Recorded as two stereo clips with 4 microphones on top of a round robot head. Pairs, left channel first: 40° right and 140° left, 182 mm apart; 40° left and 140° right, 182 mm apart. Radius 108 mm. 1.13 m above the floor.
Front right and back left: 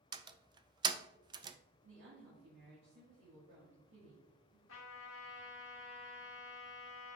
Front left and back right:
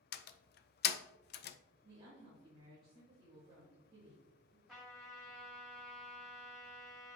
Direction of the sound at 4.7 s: 50° right.